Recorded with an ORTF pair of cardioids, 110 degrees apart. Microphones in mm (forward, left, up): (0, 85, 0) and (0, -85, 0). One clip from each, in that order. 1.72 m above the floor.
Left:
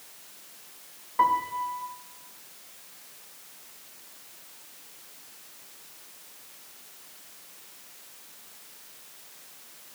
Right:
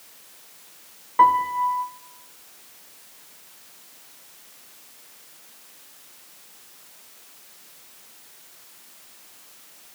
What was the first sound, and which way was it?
A piano, 25° right.